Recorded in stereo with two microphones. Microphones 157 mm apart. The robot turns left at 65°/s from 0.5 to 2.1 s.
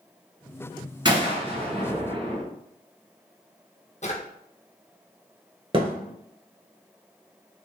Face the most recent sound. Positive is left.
turn(degrees=-35)  # may be behind; listen again after turning